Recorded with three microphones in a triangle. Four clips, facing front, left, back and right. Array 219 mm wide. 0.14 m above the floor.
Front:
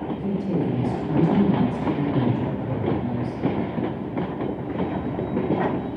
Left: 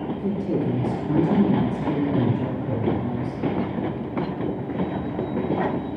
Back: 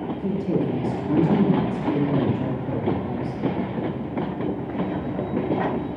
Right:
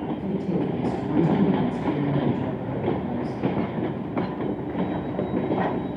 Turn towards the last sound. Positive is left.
turn(degrees=100)